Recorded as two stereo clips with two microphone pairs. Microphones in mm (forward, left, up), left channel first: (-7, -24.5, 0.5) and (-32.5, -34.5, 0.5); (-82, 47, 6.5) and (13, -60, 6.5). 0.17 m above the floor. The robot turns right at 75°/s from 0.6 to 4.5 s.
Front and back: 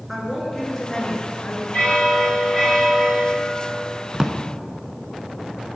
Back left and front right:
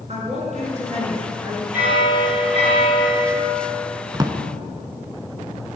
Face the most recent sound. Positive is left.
turn(degrees=-85)